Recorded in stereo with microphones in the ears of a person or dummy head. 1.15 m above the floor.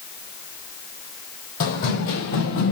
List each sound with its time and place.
1.6 s running footsteps: 50° left (ahead or behind), 1.8 m